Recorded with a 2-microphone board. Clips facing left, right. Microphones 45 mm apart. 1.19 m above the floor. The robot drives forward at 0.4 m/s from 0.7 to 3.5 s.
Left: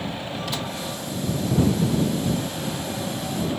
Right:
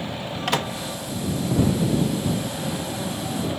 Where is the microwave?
70° right (ahead or behind).